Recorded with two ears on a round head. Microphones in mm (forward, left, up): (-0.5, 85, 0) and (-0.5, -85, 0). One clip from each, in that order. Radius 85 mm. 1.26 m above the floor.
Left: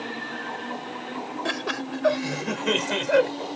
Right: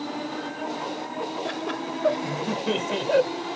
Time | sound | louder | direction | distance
1.4 | laughter | left 1 dB | 50° left (ahead or behind) | ?